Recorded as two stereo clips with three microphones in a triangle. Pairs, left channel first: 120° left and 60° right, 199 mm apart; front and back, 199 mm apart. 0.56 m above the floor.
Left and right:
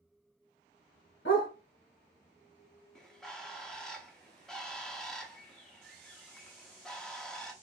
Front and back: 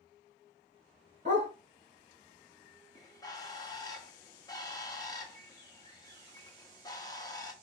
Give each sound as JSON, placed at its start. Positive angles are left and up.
{"t": 1.2, "sound": "a dog barking", "azimuth_deg": 125, "distance_m": 2.5}
{"t": 3.0, "sound": "a bird", "azimuth_deg": 35, "distance_m": 0.9}